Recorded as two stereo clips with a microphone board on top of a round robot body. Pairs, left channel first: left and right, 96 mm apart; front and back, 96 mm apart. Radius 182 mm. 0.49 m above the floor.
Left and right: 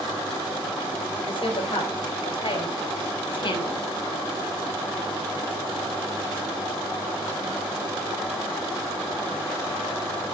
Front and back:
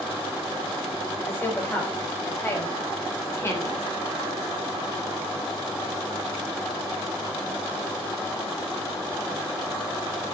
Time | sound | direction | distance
1.2 | a woman speaking | 65° left | 4.5 m